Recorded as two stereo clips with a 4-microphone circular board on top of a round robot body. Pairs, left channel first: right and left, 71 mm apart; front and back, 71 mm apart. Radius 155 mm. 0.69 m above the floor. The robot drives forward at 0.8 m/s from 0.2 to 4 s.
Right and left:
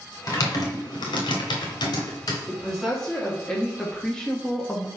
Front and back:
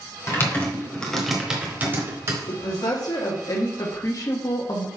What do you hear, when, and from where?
0.3 s typing on a keyboard: 50° right, 1.4 m; by 2.4 s 130° right, 1.4 m
2.5 s a woman speaking: 5° right, 2.5 m; by 4.9 s 15° right, 1.4 m